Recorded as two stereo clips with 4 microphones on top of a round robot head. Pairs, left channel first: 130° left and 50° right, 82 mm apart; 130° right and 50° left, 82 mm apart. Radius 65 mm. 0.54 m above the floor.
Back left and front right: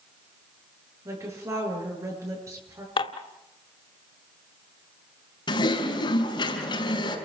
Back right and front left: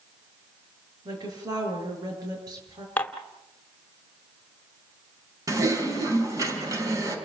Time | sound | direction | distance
1.1 | a woman speaking | 5° left | 8.5 m
3.0 | dishes clattering | 155° left | 1.5 m
5.5 | typing on a keyboard | 100° left | 5 m